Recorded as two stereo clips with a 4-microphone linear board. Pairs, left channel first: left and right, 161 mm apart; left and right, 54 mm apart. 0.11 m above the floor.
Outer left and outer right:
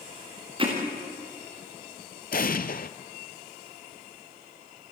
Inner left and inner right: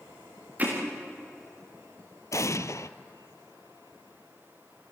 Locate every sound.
0.6 s hammering: 35° right (ahead or behind), 6 m
2.3 s an explosion: 65° left (ahead or behind), 0.7 m